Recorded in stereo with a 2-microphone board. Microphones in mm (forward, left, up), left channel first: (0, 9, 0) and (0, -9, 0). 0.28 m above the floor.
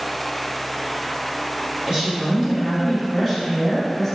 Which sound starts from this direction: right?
A woman speaking, at 1.9 s.